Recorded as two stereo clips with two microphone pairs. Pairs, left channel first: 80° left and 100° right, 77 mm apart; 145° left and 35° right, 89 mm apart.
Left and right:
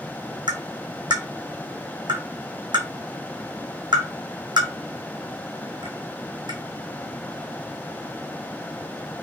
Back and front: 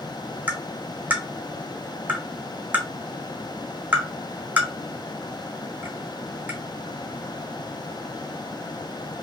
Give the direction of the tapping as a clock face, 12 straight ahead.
3 o'clock.